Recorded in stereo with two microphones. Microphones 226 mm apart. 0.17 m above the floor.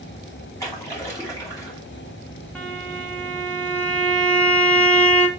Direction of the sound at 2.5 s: 5° left (ahead or behind).